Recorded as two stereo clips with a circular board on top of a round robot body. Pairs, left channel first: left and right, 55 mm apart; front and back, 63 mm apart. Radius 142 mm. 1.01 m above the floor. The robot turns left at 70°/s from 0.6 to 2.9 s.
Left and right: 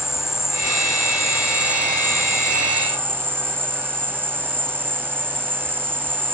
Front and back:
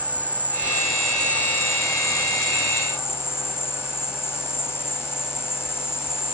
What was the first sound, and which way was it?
An insect, 115° left.